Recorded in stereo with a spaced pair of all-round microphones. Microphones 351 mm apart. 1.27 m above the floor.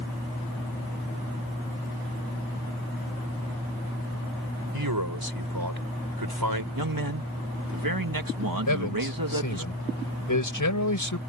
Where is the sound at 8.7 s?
60° left (ahead or behind).